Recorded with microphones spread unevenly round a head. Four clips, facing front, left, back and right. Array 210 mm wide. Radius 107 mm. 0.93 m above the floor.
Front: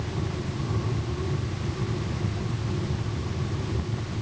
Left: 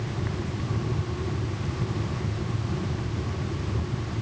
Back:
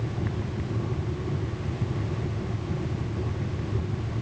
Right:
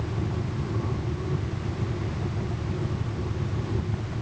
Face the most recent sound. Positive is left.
No sound to turn to.